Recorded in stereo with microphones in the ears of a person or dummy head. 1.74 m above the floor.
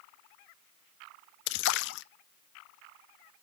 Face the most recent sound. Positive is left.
turn(degrees=70)  # may be behind; listen again after turning